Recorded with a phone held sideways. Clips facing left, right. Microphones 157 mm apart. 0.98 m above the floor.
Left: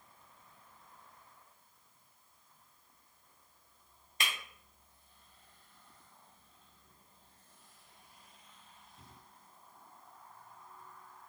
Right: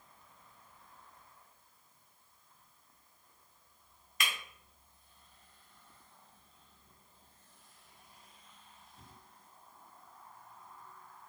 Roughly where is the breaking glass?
Left.